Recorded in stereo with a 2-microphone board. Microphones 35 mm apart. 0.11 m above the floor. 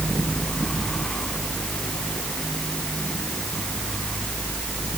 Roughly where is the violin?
No violin in this recording.